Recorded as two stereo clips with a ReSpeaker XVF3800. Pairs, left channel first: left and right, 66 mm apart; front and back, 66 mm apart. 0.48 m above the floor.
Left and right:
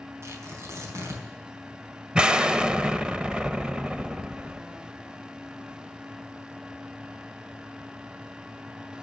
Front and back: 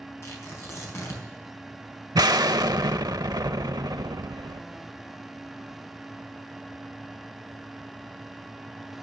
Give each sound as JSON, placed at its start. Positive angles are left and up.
{"t": 0.2, "sound": "tearing paper", "azimuth_deg": -45, "distance_m": 4.0}
{"t": 2.1, "sound": "an explosion", "azimuth_deg": -165, "distance_m": 0.5}